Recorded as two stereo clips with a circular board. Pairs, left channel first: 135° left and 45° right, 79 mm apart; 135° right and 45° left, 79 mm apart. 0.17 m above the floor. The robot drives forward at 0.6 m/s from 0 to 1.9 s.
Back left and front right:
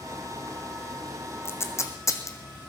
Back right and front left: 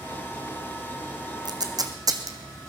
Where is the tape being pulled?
75° left, 1.5 m; by 2.4 s 85° left, 1.5 m.